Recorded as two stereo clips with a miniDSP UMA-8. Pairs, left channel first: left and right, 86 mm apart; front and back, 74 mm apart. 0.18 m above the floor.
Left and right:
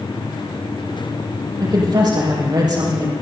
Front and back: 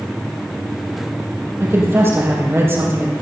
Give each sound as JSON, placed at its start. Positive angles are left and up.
{"t": 1.6, "sound": "a woman speaking", "azimuth_deg": -125, "distance_m": 6.0}